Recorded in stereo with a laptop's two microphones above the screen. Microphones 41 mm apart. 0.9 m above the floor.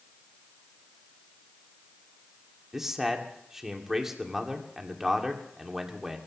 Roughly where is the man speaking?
Centre.